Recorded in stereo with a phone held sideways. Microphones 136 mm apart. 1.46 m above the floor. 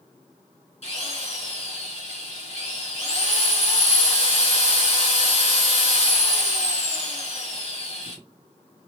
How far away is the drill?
About 1.8 m.